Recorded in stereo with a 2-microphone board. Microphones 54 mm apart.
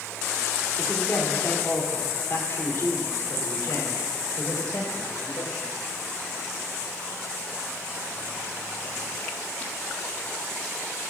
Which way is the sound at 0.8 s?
25° left (ahead or behind).